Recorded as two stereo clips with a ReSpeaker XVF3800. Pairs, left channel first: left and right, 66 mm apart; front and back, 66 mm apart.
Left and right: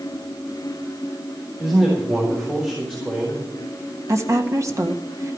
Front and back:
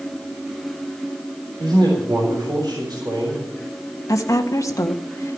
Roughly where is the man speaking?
Behind.